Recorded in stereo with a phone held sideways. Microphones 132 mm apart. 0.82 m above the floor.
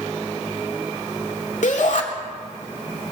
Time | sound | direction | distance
1.6 | a shout | 70° left (ahead or behind) | 2 m